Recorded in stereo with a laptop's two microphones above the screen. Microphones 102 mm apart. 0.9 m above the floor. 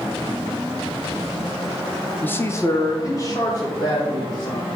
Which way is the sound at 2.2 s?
15° left (ahead or behind).